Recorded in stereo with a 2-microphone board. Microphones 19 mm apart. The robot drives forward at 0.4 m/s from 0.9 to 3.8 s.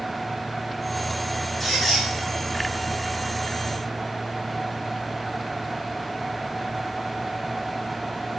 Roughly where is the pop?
No pop in this recording.